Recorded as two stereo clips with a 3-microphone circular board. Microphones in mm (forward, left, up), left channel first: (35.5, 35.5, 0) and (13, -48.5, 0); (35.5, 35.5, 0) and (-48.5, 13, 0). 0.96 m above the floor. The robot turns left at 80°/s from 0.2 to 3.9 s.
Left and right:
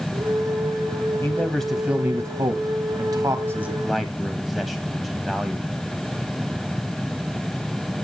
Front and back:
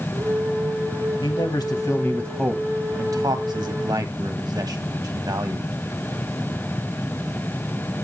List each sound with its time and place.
1.2 s a man speaking: 15° left, 1.3 m; by 5.7 s 160° left, 1.3 m